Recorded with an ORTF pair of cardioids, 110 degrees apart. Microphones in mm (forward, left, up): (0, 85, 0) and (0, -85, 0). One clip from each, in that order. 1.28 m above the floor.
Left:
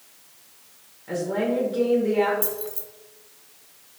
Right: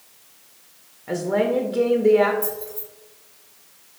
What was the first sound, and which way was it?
A woman speaking, 30° right.